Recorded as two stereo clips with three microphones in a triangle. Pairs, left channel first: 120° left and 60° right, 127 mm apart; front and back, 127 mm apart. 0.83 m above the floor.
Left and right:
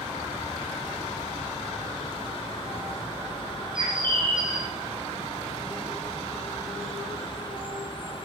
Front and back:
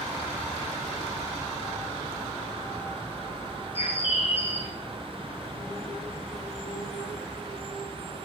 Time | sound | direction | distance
3.8 | a bird | 20° right | 0.7 m